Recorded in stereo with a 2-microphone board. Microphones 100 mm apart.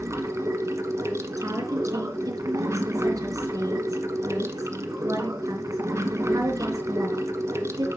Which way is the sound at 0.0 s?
30° right (ahead or behind).